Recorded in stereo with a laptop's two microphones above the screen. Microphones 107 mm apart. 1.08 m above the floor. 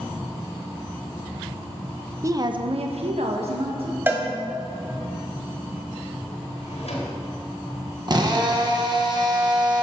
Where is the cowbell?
20° right (ahead or behind), 1.3 m.